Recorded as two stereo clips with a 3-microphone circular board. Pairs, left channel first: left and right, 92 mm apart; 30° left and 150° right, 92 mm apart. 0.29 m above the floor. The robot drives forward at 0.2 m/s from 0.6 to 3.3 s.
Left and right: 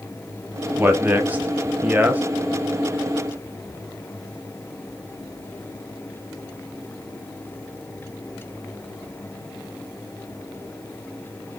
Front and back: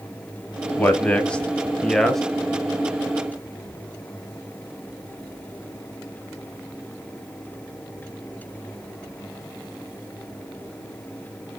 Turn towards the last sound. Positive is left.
turn(degrees=-95)